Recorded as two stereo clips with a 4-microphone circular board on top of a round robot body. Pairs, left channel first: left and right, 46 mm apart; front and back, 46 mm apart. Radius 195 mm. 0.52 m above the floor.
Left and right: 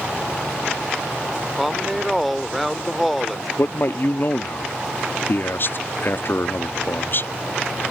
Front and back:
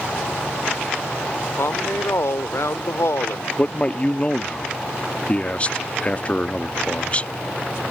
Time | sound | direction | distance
1.6 | a woman speaking | straight ahead | ?
3.6 | a man speaking | 60° left | ?